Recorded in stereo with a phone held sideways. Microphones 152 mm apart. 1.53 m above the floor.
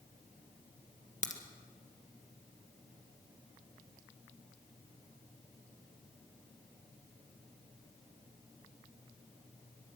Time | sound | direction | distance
1.2 | a crack | 55° left (ahead or behind) | 1.8 m